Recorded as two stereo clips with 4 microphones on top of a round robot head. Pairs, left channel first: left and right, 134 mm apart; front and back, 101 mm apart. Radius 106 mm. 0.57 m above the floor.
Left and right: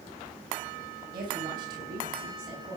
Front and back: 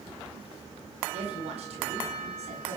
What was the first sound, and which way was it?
A woman speaking, 150° right.